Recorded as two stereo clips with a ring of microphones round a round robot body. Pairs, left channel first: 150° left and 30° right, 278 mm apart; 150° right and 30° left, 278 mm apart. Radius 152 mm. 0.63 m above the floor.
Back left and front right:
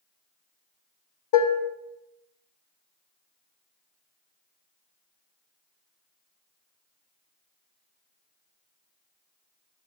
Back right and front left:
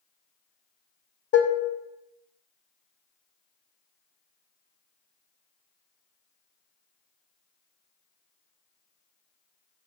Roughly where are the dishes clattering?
Behind.